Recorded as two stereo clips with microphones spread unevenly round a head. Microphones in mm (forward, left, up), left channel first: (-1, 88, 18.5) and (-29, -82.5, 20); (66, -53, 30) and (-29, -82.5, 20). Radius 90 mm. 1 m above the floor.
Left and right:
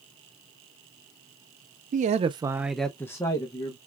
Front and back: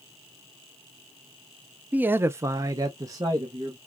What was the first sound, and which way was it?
A man speaking, 100° right.